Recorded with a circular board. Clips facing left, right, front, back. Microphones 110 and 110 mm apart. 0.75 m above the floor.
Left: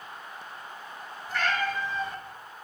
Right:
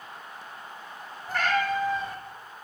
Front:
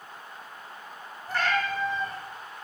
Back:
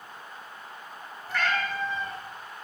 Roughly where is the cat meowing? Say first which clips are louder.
Right 3 dB, front 1 dB; ahead right.